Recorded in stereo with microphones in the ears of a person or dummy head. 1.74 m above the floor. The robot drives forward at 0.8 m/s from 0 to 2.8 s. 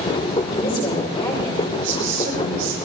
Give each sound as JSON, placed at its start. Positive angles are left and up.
{"t": 0.5, "sound": "a woman speaking", "side_deg": 25, "distance_m": 5.0}
{"t": 1.8, "sound": "a woman speaking", "side_deg": -50, "distance_m": 6.0}